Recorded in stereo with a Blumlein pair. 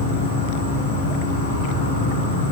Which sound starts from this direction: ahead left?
An insect, at 0.0 s.